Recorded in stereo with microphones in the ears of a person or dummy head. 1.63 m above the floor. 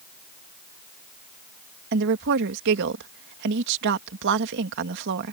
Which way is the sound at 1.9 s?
60° right (ahead or behind).